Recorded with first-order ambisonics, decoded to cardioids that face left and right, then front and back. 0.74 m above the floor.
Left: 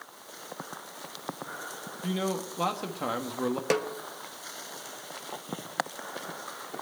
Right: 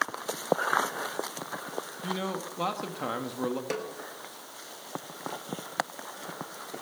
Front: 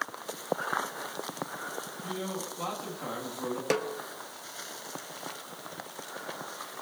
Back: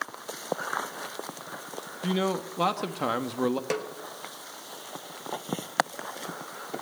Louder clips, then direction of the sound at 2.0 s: Left 3 dB, back 10 dB; 175° left.